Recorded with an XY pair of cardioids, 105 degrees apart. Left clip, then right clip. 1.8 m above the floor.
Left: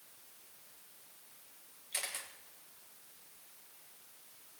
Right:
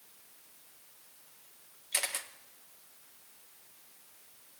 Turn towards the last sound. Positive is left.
turn(degrees=-45)